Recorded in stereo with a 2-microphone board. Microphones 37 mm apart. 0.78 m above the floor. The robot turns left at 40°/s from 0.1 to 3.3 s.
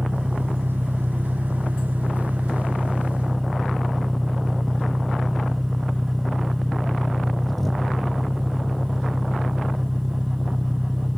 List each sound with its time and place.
0.0 s an engine running: 60° right; by 11.2 s 175° left